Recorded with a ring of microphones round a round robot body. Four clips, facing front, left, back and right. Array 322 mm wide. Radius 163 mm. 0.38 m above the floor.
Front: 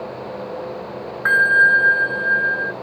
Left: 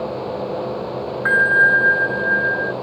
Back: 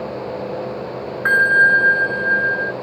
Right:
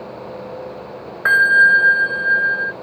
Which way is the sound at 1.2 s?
90° right.